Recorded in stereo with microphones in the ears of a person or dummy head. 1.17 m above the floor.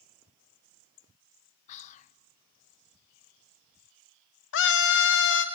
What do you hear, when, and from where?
1.7 s whispering: 40° left (ahead or behind), 0.5 m
4.5 s a scream: 65° left (ahead or behind), 0.8 m